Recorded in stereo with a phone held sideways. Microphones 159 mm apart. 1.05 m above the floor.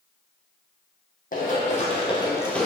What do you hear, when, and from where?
1.3 s running footsteps: 55° left (ahead or behind), 1.9 m; by 2.7 s centre (ahead or behind), 1.0 m